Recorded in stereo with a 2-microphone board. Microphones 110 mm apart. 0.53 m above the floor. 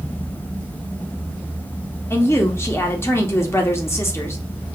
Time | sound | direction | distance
2.1 | a woman speaking | 25° left (ahead or behind) | 0.8 m